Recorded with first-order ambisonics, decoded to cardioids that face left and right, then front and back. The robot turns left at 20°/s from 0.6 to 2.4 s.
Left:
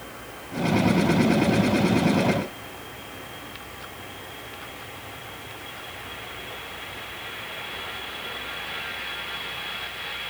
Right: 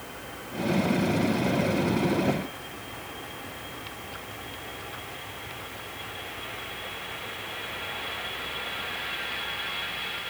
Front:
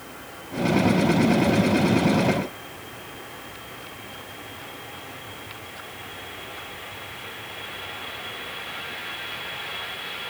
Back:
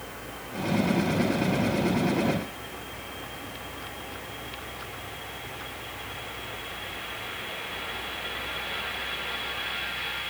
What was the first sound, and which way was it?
Only background noise.